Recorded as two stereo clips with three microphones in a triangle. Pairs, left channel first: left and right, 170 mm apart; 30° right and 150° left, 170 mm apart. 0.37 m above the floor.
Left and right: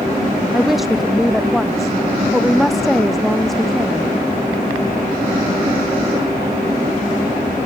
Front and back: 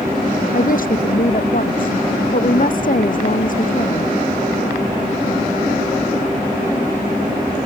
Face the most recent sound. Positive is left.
turn(degrees=0)